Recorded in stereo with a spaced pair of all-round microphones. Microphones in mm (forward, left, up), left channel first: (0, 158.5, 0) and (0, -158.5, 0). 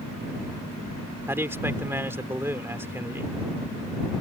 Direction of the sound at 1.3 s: 5° right (ahead or behind).